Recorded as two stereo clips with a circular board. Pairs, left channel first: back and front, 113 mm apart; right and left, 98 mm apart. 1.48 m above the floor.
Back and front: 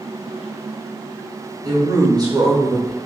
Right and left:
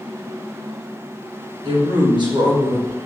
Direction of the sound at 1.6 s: 55° left.